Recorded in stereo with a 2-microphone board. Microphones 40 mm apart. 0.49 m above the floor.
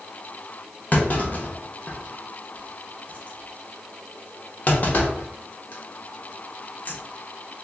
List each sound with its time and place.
0.9 s a clunk: 40° left (ahead or behind), 0.8 m